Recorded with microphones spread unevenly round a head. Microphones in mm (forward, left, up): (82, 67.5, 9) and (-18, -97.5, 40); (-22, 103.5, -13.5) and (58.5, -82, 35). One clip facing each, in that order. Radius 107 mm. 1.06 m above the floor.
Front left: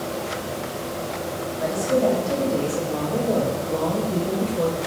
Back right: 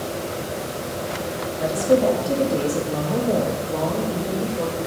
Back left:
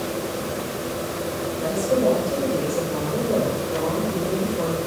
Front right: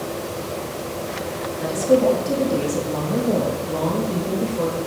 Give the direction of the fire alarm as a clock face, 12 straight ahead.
I don't hear a fire alarm.